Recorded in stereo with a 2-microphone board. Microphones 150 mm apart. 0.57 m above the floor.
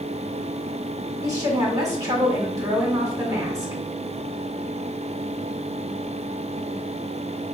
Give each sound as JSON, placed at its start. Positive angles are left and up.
{"t": 1.2, "sound": "a woman speaking", "side_deg": -20, "distance_m": 1.6}